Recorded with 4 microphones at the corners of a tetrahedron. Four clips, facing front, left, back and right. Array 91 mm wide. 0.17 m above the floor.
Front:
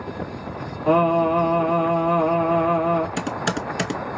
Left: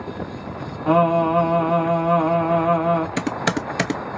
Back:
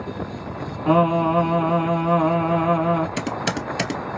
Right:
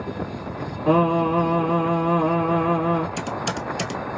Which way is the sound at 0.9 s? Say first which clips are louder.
Left 2 dB, even; 120° left.